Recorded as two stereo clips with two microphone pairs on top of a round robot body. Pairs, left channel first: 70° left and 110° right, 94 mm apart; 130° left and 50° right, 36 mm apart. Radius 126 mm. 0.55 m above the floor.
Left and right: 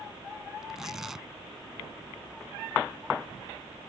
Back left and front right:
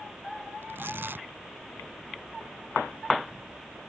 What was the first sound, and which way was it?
Tearing paper, 25° right.